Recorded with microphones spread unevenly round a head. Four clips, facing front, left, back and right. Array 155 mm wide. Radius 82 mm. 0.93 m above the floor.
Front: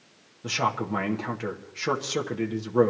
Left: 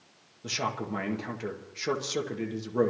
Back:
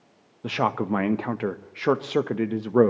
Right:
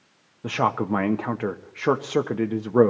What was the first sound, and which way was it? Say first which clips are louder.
A man speaking: right 9 dB, back 3 dB; 135° right.